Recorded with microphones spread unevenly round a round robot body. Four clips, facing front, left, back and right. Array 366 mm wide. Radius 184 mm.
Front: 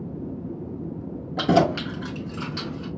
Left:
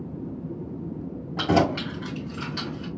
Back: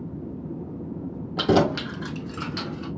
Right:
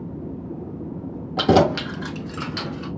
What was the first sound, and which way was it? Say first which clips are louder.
Keys jangling: right 5 dB, front 1 dB; 130° right.